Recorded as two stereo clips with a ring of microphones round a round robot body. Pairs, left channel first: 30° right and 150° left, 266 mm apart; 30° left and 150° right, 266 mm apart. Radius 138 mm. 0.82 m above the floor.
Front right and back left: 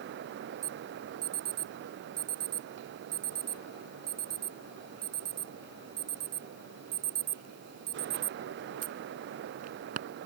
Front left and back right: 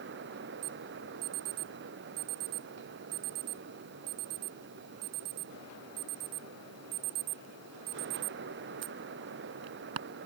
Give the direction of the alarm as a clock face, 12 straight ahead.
5 o'clock.